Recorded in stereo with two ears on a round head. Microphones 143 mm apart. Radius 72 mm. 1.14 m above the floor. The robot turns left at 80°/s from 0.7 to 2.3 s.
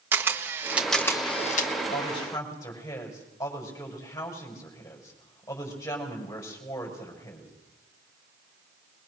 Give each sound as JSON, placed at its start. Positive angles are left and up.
{"t": 0.1, "sound": "a camera shutter", "side_deg": -15, "distance_m": 1.4}
{"t": 1.9, "sound": "a woman speaking", "azimuth_deg": 50, "distance_m": 6.0}